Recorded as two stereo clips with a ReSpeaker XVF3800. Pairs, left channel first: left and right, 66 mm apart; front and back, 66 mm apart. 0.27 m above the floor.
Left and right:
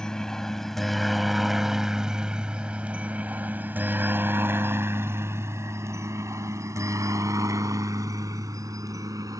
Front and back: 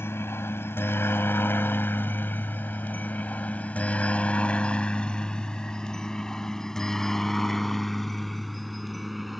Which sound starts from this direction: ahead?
A helicopter, at 0.0 s.